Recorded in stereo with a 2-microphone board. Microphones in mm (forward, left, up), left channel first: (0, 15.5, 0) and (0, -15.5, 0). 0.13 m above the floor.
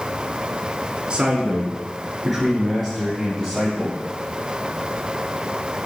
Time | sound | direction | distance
1.1 | a man speaking | 25° right (ahead or behind) | 1.3 m